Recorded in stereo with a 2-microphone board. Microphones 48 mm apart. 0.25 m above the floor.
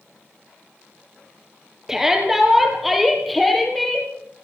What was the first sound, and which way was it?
A shout, 10° right (ahead or behind).